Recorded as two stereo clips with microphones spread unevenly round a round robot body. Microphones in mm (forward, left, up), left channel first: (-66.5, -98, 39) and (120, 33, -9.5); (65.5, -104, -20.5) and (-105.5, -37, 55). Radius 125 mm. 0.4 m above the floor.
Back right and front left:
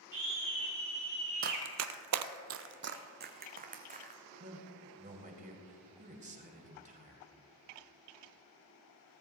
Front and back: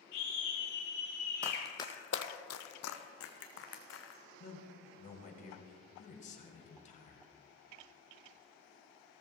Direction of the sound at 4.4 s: 10° right.